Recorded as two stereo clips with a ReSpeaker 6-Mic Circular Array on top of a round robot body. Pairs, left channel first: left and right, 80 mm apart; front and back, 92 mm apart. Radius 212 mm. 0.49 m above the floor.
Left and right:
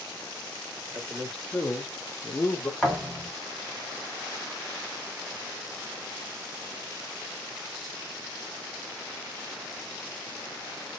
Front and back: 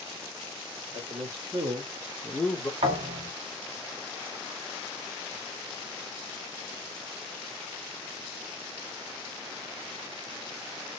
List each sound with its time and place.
0.9 s a man speaking: straight behind, 2 m; by 2.7 s 45° left, 1.5 m
2.8 s a thud: straight behind, 1.3 m